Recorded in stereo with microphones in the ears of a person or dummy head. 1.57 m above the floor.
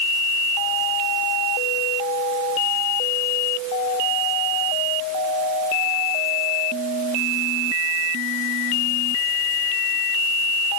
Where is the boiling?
No boiling in this recording.